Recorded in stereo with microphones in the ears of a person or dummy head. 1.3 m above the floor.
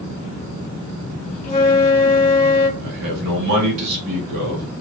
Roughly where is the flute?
Left.